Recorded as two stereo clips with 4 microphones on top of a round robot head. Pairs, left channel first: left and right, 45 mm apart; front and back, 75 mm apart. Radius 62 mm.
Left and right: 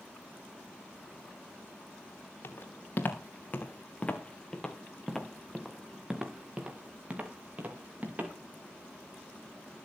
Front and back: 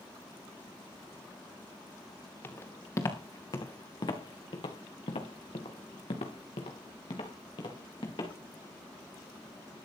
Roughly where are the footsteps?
Ahead left.